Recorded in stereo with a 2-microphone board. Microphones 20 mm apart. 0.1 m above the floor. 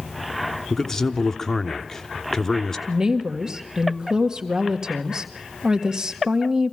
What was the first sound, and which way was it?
A man speaking, 25° left (ahead or behind).